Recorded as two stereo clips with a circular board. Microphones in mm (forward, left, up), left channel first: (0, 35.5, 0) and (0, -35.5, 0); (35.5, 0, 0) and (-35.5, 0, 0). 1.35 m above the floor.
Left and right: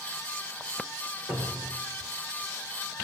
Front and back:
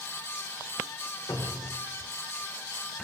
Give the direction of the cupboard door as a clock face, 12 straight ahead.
2 o'clock.